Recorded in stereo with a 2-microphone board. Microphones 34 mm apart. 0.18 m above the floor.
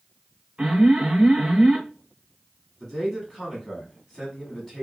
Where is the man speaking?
15° left (ahead or behind), 1.0 m.